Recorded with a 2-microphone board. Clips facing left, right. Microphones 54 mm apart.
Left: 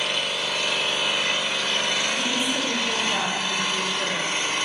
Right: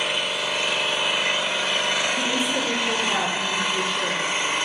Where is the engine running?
20° right (ahead or behind), 0.9 m.